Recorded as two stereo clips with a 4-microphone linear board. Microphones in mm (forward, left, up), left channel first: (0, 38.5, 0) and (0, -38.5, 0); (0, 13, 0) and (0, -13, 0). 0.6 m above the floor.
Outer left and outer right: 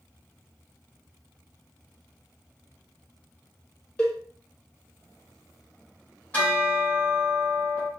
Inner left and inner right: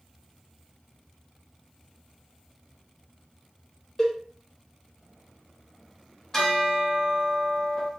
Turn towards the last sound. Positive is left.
turn(degrees=20)  # may be behind; listen again after turning